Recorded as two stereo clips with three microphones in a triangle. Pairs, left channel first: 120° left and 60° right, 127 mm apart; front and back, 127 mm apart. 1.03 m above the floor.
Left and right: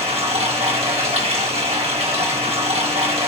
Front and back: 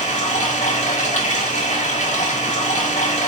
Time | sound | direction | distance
0.0 | running water | 20° right | 1.7 m